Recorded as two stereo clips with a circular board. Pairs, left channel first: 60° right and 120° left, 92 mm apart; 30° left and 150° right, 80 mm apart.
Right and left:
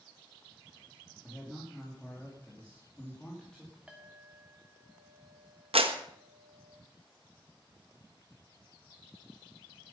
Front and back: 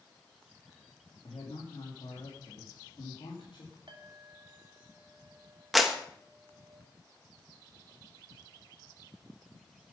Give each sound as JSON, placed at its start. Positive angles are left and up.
{"t": 1.2, "sound": "a man speaking", "azimuth_deg": 25, "distance_m": 3.0}
{"t": 3.9, "sound": "a clink", "azimuth_deg": -160, "distance_m": 2.5}
{"t": 5.7, "sound": "a clap", "azimuth_deg": 120, "distance_m": 1.2}